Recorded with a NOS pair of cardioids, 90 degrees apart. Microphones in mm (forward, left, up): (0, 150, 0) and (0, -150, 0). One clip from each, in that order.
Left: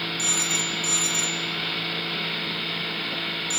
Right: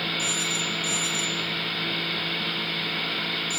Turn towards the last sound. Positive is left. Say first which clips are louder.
# left 1 dB
turn(degrees=35)